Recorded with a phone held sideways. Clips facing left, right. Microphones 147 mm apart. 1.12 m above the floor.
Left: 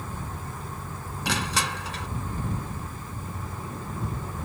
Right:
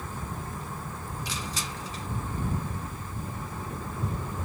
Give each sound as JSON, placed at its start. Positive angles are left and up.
{"t": 1.2, "sound": "crushing", "side_deg": 65}